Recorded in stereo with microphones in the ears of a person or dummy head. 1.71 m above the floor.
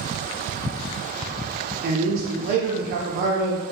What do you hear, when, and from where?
1.8 s a man speaking: 55° right (ahead or behind), 0.5 m